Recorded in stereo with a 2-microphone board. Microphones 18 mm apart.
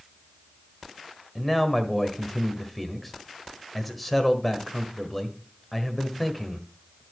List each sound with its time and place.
1.4 s a man speaking: centre (ahead or behind), 1.3 m